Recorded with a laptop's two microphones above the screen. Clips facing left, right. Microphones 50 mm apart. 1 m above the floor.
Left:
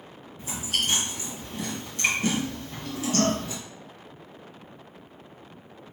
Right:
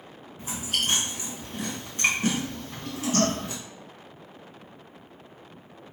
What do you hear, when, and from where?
0.4 s chewing: 30° right (ahead or behind), 1.2 m